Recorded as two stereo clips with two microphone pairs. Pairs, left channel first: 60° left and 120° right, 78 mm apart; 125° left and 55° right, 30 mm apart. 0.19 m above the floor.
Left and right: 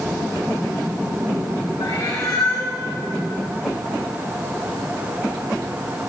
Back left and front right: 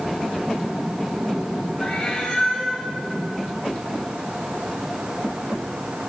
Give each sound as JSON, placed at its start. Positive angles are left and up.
{"t": 1.8, "sound": "a cat meowing", "azimuth_deg": 80, "distance_m": 5.5}